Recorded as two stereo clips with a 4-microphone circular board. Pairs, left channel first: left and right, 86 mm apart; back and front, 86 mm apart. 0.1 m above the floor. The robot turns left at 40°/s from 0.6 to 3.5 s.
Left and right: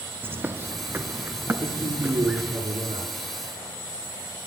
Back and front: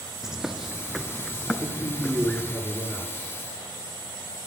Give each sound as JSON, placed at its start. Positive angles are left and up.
{"t": 0.2, "sound": "a bird", "azimuth_deg": -75, "distance_m": 0.7}
{"t": 1.6, "sound": "a man speaking", "azimuth_deg": -40, "distance_m": 8.5}